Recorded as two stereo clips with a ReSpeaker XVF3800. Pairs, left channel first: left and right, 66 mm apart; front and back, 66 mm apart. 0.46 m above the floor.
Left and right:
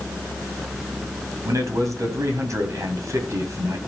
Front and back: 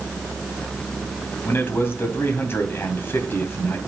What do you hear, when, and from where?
1.4 s a man speaking: 55° right, 2.5 m